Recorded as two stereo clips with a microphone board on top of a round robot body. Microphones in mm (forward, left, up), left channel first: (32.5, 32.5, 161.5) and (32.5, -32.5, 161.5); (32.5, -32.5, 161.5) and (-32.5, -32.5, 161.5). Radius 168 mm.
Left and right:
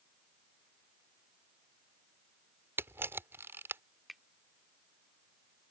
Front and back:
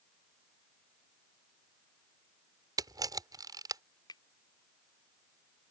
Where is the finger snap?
Straight ahead.